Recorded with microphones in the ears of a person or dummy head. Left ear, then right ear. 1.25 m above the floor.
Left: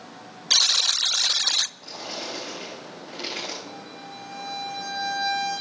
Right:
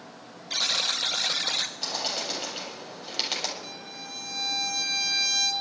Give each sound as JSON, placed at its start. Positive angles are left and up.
{"t": 0.5, "sound": "a buzzer", "side_deg": 35, "distance_m": 0.6}
{"t": 1.8, "sound": "a bird", "side_deg": -80, "distance_m": 7.0}
{"t": 3.6, "sound": "a violin", "side_deg": -80, "distance_m": 7.0}